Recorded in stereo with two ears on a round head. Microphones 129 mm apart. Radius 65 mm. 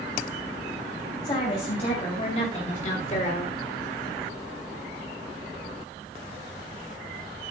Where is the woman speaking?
40° left (ahead or behind), 3 m; by 3.5 s 45° left (ahead or behind), 1.7 m.